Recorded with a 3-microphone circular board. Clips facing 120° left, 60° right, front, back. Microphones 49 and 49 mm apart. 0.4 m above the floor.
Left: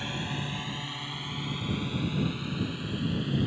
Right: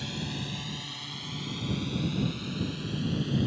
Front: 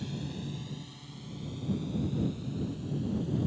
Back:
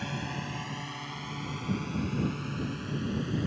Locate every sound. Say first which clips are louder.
0.0 s a drone: left 2 dB, back 3 dB; 175° left; by 3.5 s 165° right